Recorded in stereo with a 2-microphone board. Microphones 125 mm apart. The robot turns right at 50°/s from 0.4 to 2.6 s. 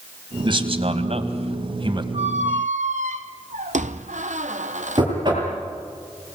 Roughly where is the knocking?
Right.